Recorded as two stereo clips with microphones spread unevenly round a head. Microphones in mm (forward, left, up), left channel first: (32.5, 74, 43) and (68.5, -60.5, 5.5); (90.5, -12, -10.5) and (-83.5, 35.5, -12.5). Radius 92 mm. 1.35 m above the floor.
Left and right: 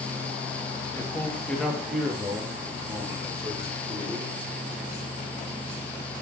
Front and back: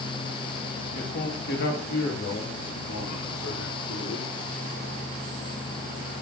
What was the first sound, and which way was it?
A man speaking, 30° left.